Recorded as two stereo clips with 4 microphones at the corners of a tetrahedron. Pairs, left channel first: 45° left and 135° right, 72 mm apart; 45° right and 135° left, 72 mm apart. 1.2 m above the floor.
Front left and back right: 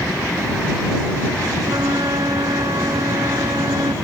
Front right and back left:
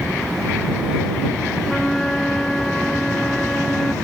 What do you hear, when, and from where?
1.6 s a flute: 130° right